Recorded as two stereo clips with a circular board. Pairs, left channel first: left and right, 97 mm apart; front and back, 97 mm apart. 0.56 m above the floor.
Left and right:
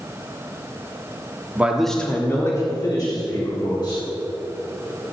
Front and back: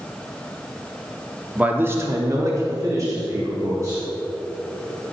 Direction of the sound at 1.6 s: 125° right.